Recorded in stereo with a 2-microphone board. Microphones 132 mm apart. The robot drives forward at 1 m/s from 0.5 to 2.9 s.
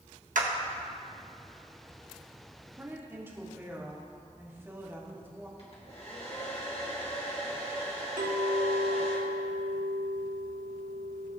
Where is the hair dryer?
50° left (ahead or behind), 1.9 m.